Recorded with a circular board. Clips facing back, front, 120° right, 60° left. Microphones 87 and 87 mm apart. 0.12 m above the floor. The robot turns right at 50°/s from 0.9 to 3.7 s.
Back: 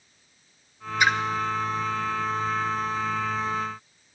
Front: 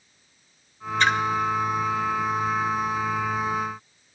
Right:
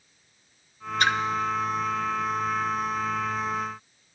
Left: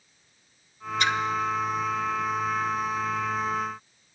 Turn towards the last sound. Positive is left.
turn(degrees=30)